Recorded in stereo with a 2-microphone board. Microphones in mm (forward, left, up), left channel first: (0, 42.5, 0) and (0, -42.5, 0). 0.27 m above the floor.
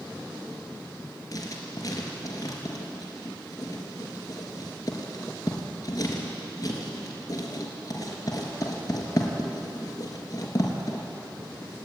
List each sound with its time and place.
1.3 s writing: 40° left (ahead or behind), 3.5 m